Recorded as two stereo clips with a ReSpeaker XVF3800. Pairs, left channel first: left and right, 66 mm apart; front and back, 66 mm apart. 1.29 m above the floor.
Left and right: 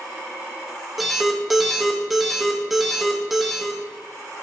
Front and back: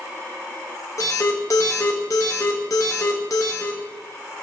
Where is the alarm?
5° right, 0.7 m.